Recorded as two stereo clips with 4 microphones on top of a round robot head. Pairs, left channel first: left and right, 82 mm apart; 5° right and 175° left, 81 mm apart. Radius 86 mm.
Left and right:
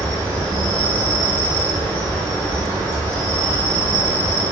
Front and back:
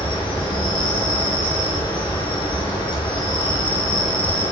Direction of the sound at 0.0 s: 15° left.